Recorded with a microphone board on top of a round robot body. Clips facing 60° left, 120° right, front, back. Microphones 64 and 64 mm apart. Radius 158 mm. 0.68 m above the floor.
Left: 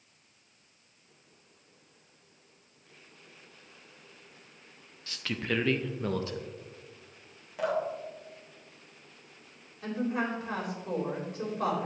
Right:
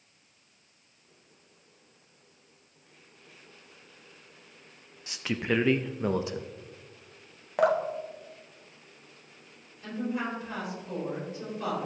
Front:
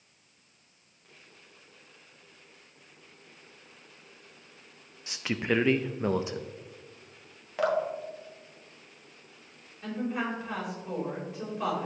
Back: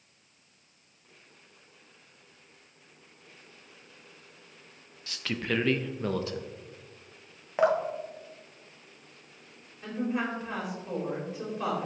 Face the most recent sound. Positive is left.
turn(degrees=85)